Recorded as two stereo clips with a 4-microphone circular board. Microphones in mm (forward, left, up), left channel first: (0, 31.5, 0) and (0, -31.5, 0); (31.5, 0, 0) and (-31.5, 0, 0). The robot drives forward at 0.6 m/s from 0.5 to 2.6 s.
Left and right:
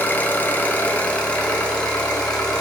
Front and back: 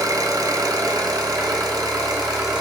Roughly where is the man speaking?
I don't hear a man speaking.